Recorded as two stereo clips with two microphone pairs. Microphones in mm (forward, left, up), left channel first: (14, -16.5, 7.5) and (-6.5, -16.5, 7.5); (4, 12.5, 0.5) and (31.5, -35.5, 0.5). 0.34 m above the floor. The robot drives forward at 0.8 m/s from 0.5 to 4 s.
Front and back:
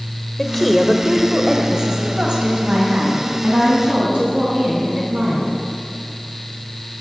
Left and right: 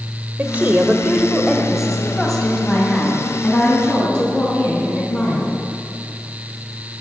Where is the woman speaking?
75° right, 1.1 m; by 5.5 s 170° right, 3 m.